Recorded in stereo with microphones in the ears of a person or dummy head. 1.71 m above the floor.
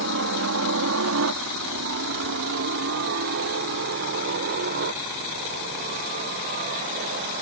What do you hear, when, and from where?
0.0 s a helicopter: 70° right (ahead or behind); by 7.4 s 45° right (ahead or behind)